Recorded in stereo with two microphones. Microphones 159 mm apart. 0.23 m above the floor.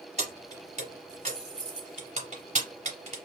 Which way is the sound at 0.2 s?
45° right (ahead or behind).